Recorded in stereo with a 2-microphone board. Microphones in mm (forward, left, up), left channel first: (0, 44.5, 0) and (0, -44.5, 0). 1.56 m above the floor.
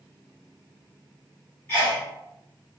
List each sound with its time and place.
1.7 s a sneeze: 25° left (ahead or behind), 1.6 m